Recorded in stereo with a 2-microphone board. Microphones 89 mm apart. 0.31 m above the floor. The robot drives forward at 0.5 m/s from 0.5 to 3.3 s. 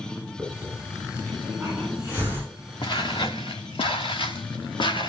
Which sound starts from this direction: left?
Footsteps, at 2.8 s.